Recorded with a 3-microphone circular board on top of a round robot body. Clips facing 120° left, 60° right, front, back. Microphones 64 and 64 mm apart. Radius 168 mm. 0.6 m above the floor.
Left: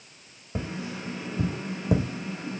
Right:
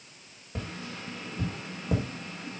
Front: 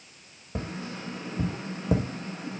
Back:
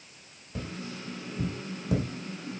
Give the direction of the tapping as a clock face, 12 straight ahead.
10 o'clock.